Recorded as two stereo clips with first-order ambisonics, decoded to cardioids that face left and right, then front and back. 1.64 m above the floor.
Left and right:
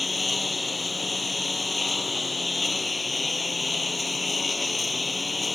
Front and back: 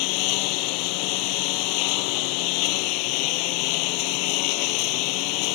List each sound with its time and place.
0.0 s a lawn mower: 5° left